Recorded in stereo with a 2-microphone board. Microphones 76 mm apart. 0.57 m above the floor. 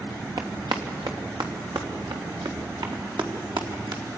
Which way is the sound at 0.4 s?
75° right (ahead or behind).